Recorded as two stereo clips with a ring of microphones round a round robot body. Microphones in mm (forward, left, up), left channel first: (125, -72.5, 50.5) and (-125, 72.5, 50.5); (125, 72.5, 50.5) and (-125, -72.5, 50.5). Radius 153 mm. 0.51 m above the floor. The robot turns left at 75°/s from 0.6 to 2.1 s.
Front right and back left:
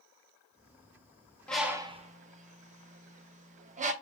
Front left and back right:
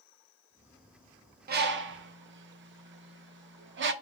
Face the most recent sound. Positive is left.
turn(degrees=-160)